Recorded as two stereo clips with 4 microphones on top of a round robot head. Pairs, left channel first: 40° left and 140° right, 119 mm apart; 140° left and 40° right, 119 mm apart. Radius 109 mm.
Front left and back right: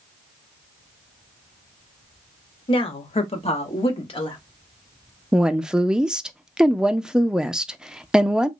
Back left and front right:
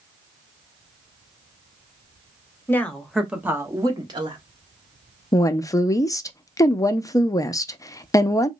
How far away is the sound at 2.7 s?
About 1.0 m.